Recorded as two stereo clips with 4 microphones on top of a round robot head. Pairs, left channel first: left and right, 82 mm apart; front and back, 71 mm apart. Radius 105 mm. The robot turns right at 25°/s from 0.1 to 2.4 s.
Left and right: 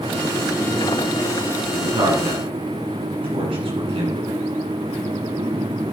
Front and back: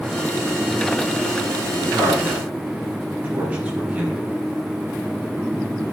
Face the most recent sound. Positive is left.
turn(degrees=-105)